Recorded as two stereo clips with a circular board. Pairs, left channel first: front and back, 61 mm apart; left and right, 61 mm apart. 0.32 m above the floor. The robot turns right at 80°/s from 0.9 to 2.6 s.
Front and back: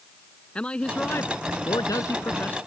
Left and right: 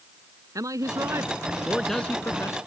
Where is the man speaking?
75° right; by 2.6 s 60° left.